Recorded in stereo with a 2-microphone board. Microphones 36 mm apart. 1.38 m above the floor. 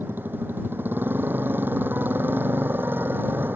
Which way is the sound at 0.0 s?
75° right (ahead or behind).